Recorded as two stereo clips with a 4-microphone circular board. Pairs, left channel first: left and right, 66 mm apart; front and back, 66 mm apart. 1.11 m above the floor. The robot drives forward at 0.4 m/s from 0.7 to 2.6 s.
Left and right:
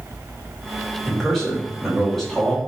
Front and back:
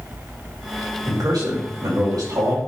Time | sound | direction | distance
1.1 | a man speaking | 175° left | 4.5 m